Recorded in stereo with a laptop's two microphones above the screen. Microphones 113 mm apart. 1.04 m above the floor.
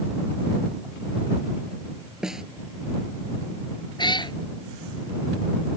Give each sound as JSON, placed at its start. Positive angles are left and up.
{"t": 2.2, "sound": "a snare drum", "side_deg": -5}
{"t": 4.0, "sound": "a cat meowing", "side_deg": 45}